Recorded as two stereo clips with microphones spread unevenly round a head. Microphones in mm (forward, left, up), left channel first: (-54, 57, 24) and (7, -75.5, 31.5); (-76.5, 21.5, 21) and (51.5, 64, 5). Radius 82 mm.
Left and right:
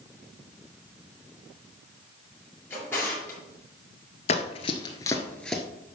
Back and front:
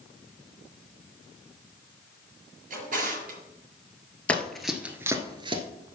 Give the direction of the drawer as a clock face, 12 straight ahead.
11 o'clock.